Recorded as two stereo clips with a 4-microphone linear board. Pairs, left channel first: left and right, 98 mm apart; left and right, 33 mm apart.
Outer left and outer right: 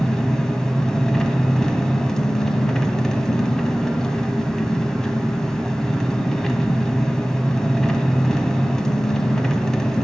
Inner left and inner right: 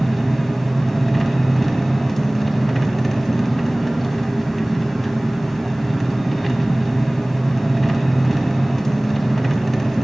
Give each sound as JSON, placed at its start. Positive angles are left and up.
{"t": 0.0, "sound": "an engine running", "side_deg": 5, "distance_m": 1.7}